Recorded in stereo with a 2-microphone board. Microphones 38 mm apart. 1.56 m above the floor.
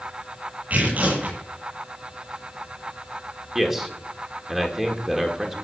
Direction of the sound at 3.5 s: 10° right (ahead or behind).